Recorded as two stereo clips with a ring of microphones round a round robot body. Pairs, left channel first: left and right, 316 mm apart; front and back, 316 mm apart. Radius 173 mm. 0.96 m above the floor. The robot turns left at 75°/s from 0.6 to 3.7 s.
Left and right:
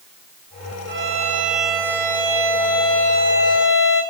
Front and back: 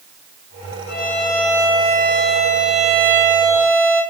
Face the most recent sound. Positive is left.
turn(degrees=115)